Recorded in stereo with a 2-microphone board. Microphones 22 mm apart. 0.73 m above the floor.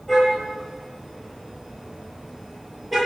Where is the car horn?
5° left (ahead or behind), 8.5 m; by 3.0 s 5° right (ahead or behind), 9 m.